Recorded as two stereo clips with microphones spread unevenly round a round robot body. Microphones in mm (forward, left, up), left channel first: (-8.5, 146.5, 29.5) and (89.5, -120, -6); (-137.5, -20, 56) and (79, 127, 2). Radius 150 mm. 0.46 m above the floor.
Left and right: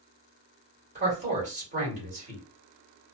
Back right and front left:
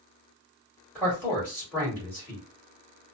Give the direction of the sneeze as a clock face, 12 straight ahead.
I don't hear a sneeze.